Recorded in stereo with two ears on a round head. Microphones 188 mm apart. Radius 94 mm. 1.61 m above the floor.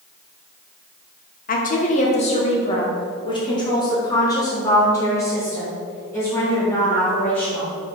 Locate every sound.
1.5 s a woman speaking: 40° left (ahead or behind), 1.4 m; by 7.7 s 10° left (ahead or behind), 4.5 m